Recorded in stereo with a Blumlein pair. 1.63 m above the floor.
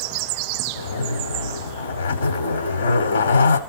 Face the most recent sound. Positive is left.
turn(degrees=70)